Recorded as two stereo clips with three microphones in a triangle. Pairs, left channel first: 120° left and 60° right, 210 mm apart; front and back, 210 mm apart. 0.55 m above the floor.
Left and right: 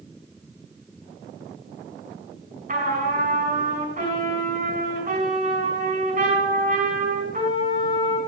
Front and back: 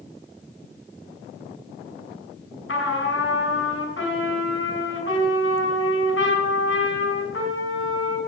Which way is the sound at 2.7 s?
15° right.